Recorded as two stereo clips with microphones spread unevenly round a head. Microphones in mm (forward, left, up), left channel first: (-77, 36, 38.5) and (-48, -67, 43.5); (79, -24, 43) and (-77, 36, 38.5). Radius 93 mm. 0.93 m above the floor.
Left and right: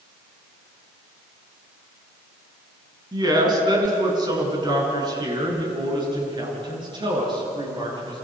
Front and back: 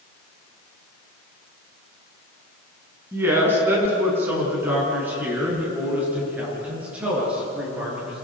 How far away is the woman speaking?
About 7.5 m.